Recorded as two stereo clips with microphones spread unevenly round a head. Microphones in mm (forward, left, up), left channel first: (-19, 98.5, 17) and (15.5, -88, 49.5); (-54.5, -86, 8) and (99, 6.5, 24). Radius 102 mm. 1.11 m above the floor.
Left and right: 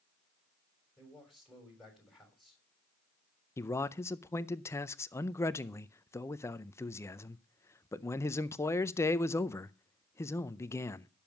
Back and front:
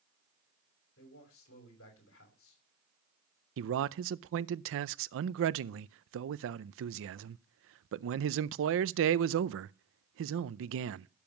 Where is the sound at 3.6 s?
25° left, 0.5 m.